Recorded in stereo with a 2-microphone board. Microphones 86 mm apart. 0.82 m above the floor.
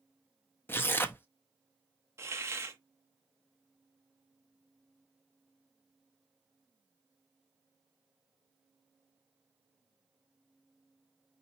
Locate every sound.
0.7 s tearing paper: 25° left (ahead or behind), 0.6 m
2.2 s a hiss: 30° right (ahead or behind), 0.8 m